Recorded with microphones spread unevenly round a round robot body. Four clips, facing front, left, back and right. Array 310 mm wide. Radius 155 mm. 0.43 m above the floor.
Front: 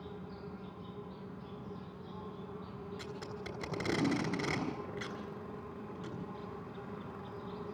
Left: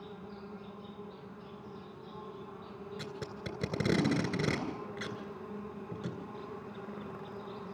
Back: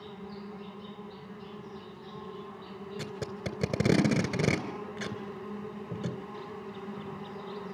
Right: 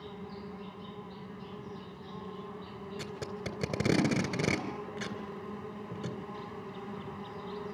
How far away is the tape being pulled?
About 2.5 m.